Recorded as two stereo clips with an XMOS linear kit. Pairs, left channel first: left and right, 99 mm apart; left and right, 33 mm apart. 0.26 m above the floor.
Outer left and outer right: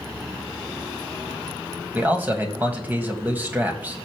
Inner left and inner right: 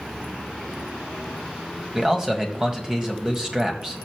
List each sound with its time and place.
1.9 s a man speaking: 20° right (ahead or behind), 1.7 m